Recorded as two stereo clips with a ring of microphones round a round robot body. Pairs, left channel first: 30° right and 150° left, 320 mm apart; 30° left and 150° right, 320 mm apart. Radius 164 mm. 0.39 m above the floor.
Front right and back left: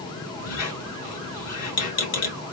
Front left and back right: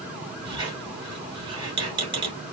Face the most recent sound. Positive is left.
turn(degrees=-75)